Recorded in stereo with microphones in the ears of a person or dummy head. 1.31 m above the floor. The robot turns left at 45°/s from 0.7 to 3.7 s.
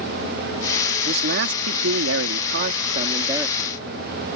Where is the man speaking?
55° right; by 3.8 s 175° right.